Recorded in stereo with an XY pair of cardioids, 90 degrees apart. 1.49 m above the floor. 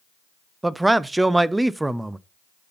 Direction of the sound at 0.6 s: 15° right.